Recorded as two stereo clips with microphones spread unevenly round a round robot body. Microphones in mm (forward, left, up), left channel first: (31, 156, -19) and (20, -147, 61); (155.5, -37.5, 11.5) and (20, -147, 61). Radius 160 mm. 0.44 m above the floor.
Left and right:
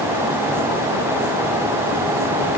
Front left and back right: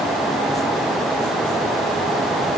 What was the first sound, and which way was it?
Only background noise.